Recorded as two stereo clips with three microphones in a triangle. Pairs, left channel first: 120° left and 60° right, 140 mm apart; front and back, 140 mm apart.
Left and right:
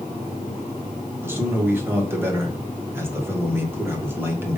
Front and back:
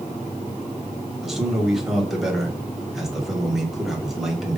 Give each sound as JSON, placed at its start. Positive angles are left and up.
{"t": 1.2, "sound": "a man speaking", "azimuth_deg": -95, "distance_m": 1.0}